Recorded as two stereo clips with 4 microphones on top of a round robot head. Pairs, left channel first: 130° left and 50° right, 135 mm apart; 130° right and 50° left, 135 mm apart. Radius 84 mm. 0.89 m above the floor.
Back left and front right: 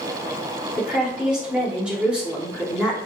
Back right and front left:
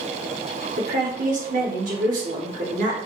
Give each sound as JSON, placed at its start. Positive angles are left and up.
{"t": 0.8, "sound": "a woman speaking", "azimuth_deg": 35, "distance_m": 2.5}